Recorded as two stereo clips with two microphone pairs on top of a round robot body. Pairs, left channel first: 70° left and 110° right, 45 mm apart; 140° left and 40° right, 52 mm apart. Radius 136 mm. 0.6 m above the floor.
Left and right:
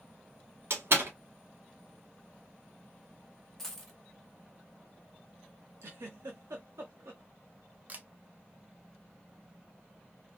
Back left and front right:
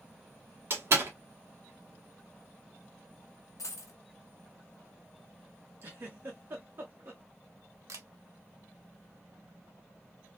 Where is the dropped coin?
155° left, 0.7 m.